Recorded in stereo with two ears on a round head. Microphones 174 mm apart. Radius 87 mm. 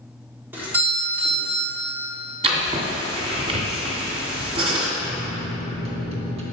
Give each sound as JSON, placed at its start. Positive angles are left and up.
{"t": 0.5, "sound": "a doorbell", "side_deg": -10, "distance_m": 1.7}
{"t": 2.4, "sound": "writing", "side_deg": -30, "distance_m": 1.5}
{"t": 5.0, "sound": "a microwave", "side_deg": -30, "distance_m": 1.0}